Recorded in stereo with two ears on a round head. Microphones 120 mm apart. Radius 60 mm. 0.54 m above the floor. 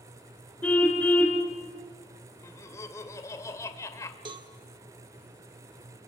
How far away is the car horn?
About 3.5 m.